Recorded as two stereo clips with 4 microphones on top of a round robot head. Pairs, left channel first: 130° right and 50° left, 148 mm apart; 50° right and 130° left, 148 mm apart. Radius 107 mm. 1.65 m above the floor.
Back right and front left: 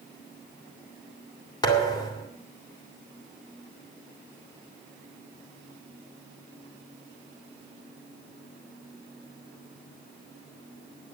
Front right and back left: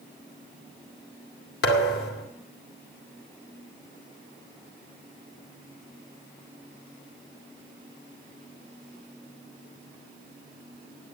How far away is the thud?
About 2 m.